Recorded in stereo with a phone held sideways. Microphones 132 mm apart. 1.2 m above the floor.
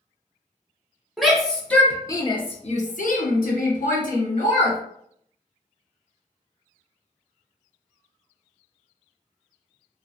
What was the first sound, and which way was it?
A shout, centre (ahead or behind).